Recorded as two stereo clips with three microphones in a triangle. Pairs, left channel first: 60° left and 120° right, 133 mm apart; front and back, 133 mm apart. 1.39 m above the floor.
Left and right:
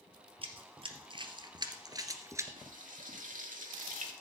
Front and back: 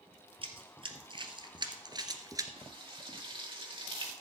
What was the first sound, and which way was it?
Running footsteps, 150° right.